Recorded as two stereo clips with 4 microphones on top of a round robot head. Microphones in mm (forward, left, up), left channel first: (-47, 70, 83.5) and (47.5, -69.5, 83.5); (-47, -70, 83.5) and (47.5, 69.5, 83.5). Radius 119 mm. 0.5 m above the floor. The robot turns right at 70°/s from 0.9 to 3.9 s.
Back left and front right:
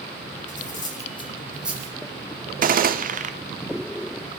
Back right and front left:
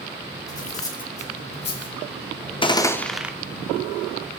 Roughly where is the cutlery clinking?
Behind.